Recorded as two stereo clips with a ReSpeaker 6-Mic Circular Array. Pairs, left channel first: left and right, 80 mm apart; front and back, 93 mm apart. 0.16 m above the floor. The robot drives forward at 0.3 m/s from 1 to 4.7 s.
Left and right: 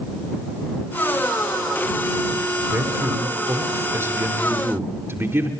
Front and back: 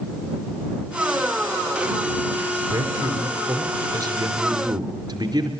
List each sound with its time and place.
2.7 s a man speaking: 135° right, 2.5 m; by 5.5 s 145° right, 3 m